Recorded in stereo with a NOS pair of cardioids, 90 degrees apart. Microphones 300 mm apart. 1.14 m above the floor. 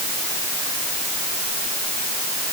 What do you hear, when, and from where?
Only background noise.